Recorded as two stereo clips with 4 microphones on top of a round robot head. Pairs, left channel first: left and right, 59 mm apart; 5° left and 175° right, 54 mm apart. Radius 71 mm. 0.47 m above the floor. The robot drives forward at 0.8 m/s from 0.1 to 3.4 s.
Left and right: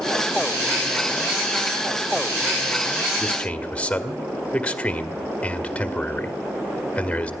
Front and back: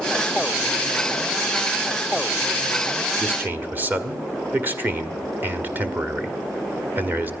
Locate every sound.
3.2 s a man speaking: 145° left, 1.4 m; by 7.3 s 150° left, 1.5 m